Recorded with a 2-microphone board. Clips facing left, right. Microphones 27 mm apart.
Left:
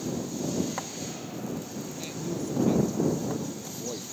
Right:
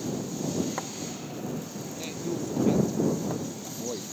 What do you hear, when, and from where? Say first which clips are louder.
2.0 s a man speaking: right 2 dB; 5° right (ahead or behind)